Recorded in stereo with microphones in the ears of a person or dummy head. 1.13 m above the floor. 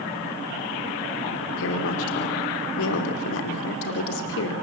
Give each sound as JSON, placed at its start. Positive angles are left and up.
{"t": 1.6, "sound": "a woman speaking", "side_deg": 75, "distance_m": 3.0}